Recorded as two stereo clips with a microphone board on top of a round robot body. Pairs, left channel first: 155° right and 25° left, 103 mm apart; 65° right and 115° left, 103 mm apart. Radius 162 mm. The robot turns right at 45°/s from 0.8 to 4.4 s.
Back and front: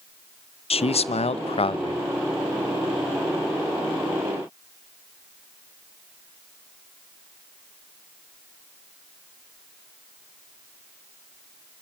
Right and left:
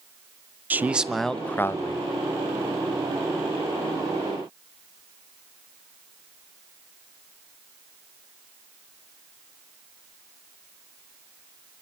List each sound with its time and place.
0.7 s a man speaking: 175° right, 1.0 m; by 2.0 s 120° right, 1.0 m